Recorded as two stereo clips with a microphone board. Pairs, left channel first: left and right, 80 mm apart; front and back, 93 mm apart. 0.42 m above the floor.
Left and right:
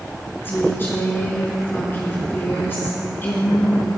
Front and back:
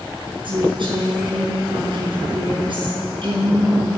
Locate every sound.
0.4 s a woman speaking: 150° left, 6.5 m